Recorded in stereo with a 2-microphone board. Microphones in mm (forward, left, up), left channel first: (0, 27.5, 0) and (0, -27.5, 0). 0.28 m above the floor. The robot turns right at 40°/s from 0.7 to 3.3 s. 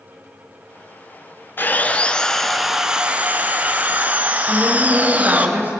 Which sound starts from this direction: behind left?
Sawing, at 1.6 s.